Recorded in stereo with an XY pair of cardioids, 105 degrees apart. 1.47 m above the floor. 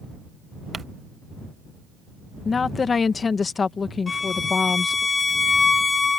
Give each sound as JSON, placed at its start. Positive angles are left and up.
{"t": 0.7, "sound": "crumpling", "azimuth_deg": -35}
{"t": 2.5, "sound": "a woman speaking", "azimuth_deg": 35}
{"t": 4.1, "sound": "a violin", "azimuth_deg": 30}